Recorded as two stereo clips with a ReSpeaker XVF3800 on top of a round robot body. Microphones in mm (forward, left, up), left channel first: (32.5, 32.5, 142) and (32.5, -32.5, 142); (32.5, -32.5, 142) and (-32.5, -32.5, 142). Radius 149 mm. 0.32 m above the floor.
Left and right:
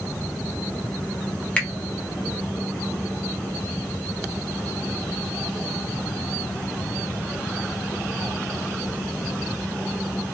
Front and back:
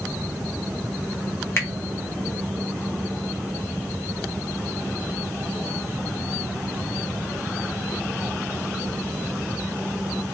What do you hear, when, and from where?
1.6 s a finger snap: 25° left, 1.2 m